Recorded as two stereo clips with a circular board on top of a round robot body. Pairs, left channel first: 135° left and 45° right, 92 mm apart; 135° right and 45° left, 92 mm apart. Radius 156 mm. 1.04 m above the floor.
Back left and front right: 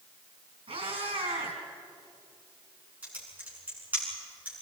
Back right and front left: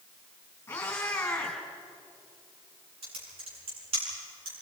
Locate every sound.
0.7 s a cat meowing: 70° right, 4 m
3.0 s typing on a keyboard: 30° left, 8.5 m